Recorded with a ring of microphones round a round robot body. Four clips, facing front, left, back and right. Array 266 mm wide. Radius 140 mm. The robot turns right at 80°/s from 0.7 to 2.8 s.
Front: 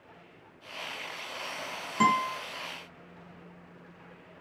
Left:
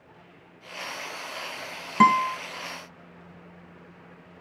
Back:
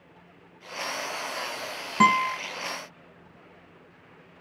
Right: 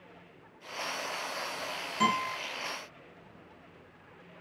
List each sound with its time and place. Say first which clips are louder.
2.0 s a guitar: left 10 dB, back 4 dB; 115° left, 3.5 m; by 2.4 s 145° left, 3.5 m